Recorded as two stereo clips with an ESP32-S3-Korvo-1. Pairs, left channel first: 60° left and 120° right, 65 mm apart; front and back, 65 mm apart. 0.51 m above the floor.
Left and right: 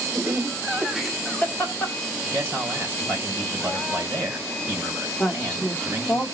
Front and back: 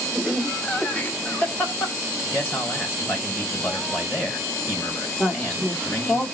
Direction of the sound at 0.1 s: 75° right.